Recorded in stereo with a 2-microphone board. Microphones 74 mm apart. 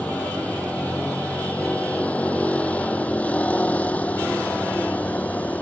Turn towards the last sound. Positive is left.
turn(degrees=20)  # may be behind; listen again after turning